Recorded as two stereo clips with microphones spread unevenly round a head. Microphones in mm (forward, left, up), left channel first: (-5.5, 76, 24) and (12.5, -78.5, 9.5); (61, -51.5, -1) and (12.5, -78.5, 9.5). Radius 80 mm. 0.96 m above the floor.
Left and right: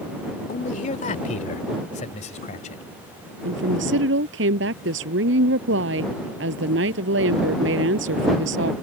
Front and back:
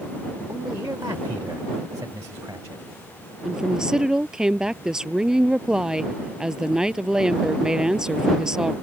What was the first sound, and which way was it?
A man speaking, 145° left.